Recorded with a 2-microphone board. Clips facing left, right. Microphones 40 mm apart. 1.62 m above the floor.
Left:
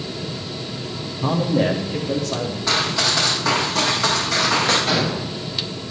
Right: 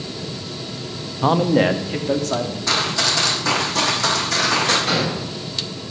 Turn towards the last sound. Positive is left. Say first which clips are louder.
# even
turn(degrees=0)  # may be behind; listen again after turning